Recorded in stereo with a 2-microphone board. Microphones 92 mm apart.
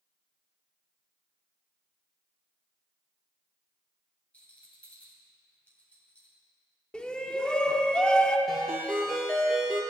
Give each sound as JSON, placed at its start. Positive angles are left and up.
{"t": 4.3, "sound": "a rattle", "side_deg": 15, "distance_m": 2.0}
{"t": 6.9, "sound": "a shout", "side_deg": 10, "distance_m": 0.7}
{"t": 8.5, "sound": "a ringtone", "side_deg": 5, "distance_m": 3.5}